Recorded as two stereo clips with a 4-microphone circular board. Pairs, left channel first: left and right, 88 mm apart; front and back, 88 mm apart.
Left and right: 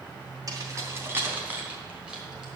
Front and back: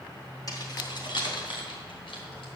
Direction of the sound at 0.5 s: 45° right.